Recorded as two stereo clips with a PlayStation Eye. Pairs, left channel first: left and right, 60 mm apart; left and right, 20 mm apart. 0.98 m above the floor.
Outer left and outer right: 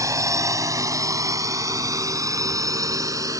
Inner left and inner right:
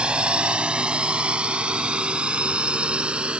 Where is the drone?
65° right (ahead or behind); by 3.4 s 70° right (ahead or behind).